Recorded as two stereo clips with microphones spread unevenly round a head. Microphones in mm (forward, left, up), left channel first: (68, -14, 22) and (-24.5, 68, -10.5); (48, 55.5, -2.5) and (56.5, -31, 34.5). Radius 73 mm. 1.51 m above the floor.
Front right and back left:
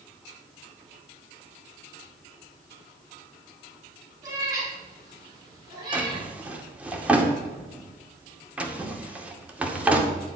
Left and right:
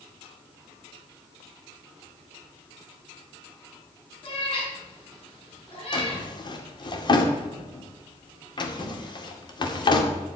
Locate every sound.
4.2 s a cat meowing: 75° left, 6 m; by 6.2 s 80° left, 9 m
5.9 s a drawer: 55° left, 2 m